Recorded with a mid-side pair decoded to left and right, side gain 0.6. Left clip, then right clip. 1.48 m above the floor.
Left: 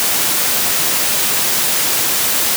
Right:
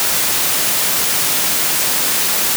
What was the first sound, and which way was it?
Only background noise.